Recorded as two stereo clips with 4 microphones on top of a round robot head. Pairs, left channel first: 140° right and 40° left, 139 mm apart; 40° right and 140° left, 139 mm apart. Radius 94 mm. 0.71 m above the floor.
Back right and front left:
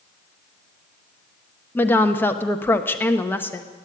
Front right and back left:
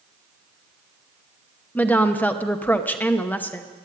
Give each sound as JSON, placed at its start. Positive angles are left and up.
{"t": 1.8, "sound": "a woman speaking", "azimuth_deg": -95, "distance_m": 1.0}